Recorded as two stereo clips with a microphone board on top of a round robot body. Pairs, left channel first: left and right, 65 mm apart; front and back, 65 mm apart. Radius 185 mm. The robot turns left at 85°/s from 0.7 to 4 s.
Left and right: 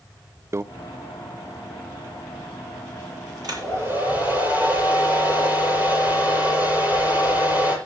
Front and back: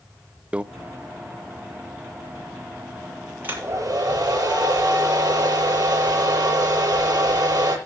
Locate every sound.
0.5 s a microwave: 115° right, 0.7 m
3.4 s a hair dryer: 115° right, 8 m; by 7.8 s 160° right, 8 m